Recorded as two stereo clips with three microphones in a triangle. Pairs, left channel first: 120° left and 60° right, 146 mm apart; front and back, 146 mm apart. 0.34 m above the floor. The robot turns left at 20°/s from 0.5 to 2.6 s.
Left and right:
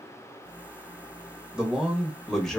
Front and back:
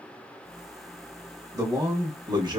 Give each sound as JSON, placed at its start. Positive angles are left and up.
{"t": 1.5, "sound": "a man speaking", "azimuth_deg": -140, "distance_m": 1.0}